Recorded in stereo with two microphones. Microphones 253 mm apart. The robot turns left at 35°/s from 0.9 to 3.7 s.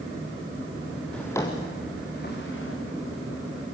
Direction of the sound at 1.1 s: 5° left (ahead or behind).